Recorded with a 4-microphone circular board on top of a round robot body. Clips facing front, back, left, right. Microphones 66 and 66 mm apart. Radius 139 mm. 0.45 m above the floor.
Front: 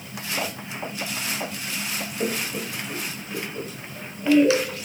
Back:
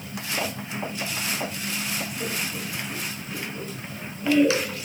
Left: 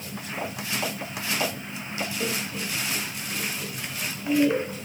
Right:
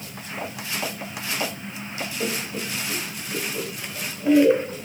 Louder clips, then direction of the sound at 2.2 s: Front 3 dB, right 2 dB; 15° right.